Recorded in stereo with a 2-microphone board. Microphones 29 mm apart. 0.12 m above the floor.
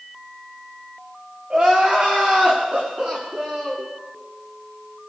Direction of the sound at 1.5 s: 45° right (ahead or behind).